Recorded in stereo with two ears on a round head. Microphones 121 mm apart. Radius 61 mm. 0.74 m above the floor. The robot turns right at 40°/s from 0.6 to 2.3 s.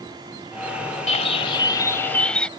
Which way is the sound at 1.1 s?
120° left.